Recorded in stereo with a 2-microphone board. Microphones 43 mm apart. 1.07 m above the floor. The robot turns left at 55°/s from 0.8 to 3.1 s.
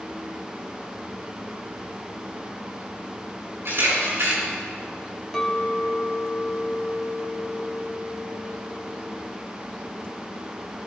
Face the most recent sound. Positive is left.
turn(degrees=10)  # may be behind; listen again after turning